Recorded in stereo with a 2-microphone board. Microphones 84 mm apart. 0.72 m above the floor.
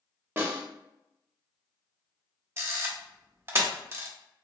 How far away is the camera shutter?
About 0.6 m.